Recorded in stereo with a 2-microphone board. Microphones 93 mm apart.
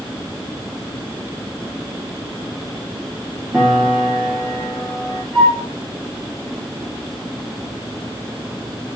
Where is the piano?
10° right (ahead or behind), 4.5 m.